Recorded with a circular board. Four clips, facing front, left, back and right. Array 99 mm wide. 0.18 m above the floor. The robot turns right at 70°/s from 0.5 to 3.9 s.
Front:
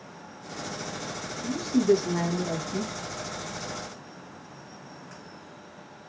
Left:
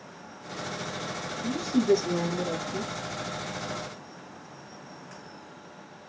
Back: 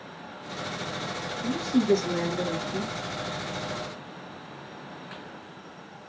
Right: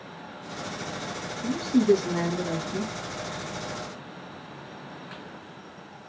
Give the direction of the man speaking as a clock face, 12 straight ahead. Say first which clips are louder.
Right 3 dB, front 1 dB; 4 o'clock.